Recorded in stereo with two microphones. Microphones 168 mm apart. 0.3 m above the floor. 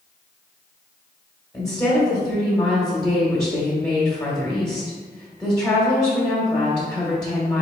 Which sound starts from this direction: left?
A woman speaking, at 1.5 s.